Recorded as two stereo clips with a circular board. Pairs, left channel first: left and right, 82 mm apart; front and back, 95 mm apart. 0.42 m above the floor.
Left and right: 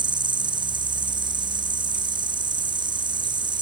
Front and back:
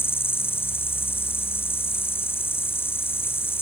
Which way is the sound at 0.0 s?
65° right.